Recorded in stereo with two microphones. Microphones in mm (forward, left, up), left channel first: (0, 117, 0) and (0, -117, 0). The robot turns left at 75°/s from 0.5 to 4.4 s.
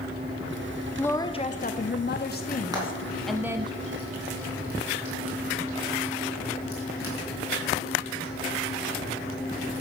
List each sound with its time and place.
1.0 s a woman speaking: 175° left, 0.6 m; by 3.7 s 30° right, 0.6 m
2.7 s frying: 15° right (ahead or behind), 3 m; by 8.3 s 70° left (ahead or behind), 3 m